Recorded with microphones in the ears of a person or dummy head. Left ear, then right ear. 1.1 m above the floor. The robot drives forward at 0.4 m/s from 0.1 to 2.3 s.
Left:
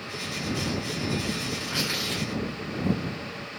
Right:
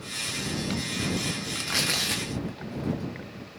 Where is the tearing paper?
50° right (ahead or behind), 0.6 m; by 3.1 s 35° right (ahead or behind), 0.8 m.